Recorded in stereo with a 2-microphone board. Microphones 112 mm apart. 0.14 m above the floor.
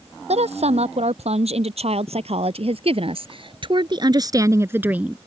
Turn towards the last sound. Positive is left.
turn(degrees=-10)  # may be behind; listen again after turning